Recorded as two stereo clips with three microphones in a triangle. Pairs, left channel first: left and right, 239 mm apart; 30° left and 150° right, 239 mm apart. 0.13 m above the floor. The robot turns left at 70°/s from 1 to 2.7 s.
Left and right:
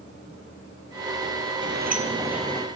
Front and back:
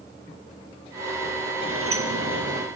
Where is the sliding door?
120° right, 1.9 m; by 2.7 s 165° left, 1.9 m.